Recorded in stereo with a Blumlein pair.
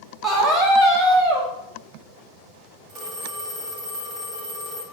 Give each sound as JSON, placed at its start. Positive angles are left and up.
{"t": 0.2, "sound": "a scream", "azimuth_deg": -15, "distance_m": 1.2}
{"t": 2.9, "sound": "a phone ringing", "azimuth_deg": -20, "distance_m": 1.2}